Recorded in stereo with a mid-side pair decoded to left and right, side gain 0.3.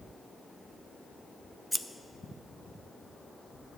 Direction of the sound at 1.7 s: Straight ahead.